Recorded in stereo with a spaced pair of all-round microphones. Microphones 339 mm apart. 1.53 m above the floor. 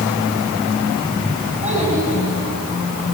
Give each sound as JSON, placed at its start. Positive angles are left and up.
{"t": 1.6, "sound": "a child speaking", "side_deg": -20, "distance_m": 9.5}